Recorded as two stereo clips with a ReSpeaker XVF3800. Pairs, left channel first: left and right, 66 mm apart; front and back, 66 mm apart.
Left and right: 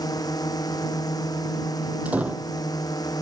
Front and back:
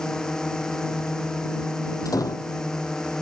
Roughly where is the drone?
Left.